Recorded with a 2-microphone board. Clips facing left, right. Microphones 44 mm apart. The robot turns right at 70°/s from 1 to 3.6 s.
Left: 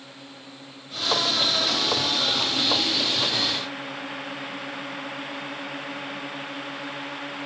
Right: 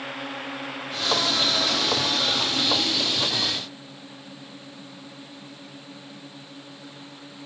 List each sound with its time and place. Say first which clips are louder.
0.0 s a drone: right 11 dB; 115° right; by 7.5 s 70° left